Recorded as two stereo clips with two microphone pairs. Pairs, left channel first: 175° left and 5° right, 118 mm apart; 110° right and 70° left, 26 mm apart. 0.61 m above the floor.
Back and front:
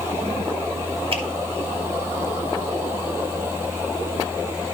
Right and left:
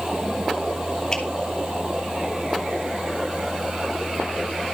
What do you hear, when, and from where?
1.1 s a finger snap: 40° right, 3 m